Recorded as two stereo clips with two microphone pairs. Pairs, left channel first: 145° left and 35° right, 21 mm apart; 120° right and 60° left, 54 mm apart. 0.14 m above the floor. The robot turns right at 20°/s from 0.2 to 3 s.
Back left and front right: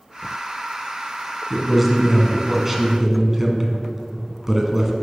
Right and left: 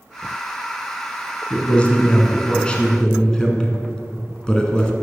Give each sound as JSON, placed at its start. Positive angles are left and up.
{"t": 1.5, "sound": "a man speaking", "azimuth_deg": -100, "distance_m": 1.3}